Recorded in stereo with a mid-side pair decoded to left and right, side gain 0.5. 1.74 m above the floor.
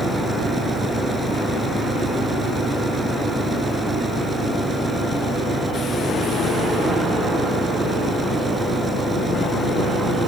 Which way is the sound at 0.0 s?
30° right.